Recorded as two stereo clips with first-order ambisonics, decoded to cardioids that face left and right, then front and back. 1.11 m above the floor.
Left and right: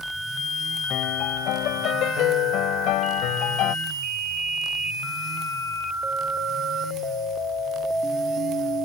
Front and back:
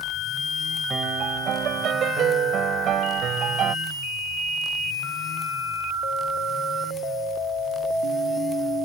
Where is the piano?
125° left.